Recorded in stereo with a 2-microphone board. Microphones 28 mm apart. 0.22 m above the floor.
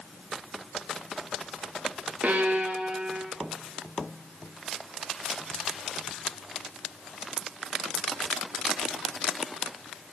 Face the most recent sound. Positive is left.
turn(degrees=-70)  # may be behind; listen again after turning